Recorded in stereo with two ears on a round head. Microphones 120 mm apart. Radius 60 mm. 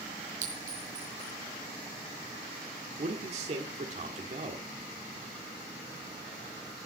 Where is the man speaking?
50° right (ahead or behind), 1.7 m.